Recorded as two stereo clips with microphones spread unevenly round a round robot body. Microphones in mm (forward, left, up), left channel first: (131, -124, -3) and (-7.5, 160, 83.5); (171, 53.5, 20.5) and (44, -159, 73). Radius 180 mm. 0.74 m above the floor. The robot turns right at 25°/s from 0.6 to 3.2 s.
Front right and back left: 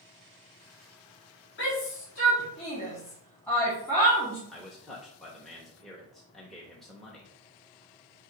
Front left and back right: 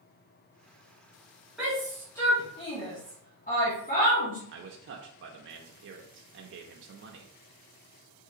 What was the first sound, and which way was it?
A shout, 30° right.